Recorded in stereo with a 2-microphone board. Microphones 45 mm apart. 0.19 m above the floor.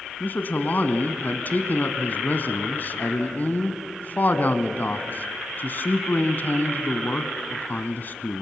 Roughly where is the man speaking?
Left.